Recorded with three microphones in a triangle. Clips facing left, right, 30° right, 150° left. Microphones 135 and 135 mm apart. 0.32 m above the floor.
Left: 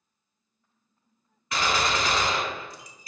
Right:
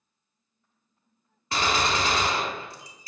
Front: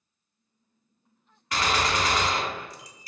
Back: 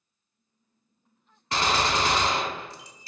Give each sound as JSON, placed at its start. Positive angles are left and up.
{"t": 1.5, "sound": "a gunshot", "azimuth_deg": -145, "distance_m": 0.5}